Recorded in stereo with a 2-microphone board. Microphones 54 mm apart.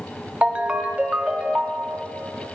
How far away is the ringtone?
About 0.5 m.